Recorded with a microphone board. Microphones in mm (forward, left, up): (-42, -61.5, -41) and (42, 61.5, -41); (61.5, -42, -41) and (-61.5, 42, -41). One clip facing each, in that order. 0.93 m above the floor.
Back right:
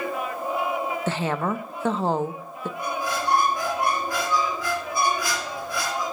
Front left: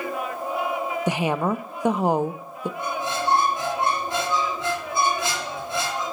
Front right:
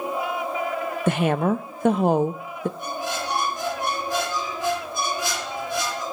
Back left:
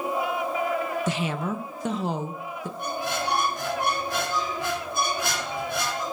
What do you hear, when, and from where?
1.1 s a woman speaking: 20° right, 0.5 m
2.8 s a squeak: 120° left, 1.6 m